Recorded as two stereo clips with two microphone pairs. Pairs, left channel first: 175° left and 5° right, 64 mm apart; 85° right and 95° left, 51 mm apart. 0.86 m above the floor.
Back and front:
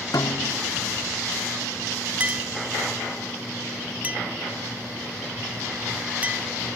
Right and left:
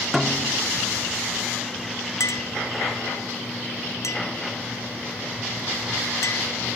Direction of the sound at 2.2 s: 70° right.